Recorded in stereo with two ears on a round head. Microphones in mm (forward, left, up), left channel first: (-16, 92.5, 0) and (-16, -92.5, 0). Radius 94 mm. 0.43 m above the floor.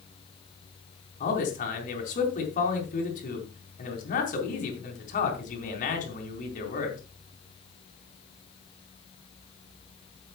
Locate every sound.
1.2 s a man speaking: 40° left (ahead or behind), 4 m